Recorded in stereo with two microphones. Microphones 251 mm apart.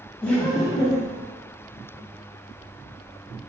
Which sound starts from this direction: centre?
Laughter, at 0.2 s.